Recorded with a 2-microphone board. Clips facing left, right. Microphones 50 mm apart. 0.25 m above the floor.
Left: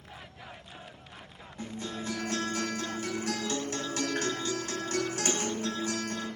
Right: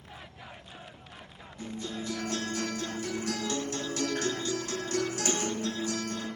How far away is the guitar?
About 1.5 m.